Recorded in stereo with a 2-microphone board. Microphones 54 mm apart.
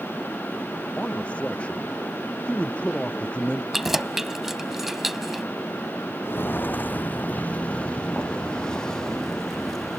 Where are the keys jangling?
5° right (ahead or behind).